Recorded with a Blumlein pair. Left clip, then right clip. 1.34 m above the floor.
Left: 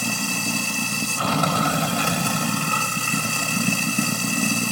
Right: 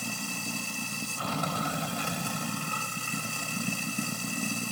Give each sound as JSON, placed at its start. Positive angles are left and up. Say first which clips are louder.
{"t": 0.0, "sound": "running water", "louder": "left 10 dB", "azimuth_deg": 60}